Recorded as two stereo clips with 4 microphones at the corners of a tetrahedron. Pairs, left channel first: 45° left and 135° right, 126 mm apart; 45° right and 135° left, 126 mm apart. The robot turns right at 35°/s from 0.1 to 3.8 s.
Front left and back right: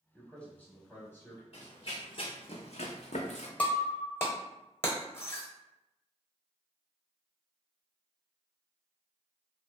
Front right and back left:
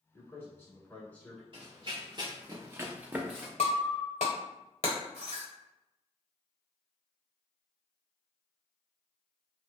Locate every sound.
0.1 s a man speaking: 25° right, 1.0 m; by 1.4 s 20° left, 1.0 m
1.5 s running footsteps: 85° left, 1.0 m; by 3.5 s 55° left, 0.8 m
3.6 s breaking glass: 30° right, 0.9 m; by 5.5 s 25° right, 0.9 m